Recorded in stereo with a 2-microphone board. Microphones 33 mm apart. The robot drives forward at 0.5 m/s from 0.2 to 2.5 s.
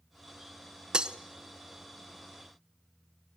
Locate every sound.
0.9 s breaking glass: 25° right (ahead or behind), 0.7 m